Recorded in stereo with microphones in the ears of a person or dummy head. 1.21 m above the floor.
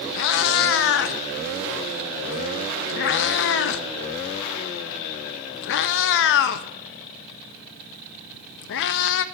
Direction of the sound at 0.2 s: 55° left (ahead or behind).